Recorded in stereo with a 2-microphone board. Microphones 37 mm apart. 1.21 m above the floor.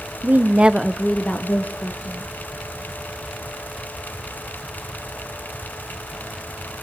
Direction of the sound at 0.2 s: 55° right (ahead or behind).